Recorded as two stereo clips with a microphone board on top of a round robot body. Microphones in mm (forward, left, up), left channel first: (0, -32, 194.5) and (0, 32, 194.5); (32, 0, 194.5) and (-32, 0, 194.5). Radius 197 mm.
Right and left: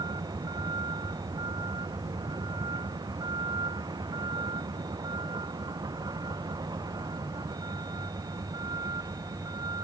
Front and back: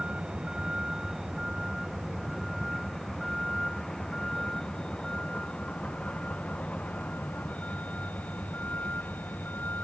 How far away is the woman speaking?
I don't hear a woman speaking.